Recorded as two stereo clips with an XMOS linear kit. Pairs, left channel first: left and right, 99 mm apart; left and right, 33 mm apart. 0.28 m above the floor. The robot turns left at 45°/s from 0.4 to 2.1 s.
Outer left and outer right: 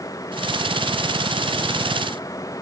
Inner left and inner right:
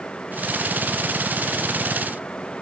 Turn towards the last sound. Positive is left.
No sound to turn to.